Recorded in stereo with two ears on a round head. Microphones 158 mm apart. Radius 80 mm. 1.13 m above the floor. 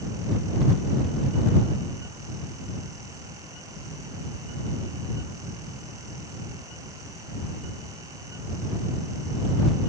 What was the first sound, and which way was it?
Only background noise.